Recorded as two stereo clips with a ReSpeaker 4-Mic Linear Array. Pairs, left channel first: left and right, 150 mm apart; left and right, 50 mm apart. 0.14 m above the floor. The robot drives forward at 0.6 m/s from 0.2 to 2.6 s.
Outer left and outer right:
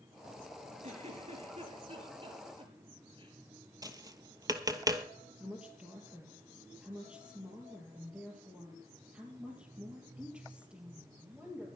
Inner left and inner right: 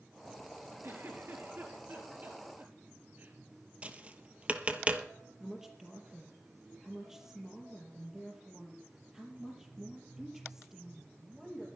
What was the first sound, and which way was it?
A giggle, 50° right (ahead or behind).